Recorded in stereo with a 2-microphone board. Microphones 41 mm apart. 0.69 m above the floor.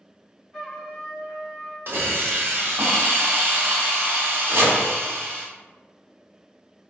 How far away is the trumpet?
About 1.3 m.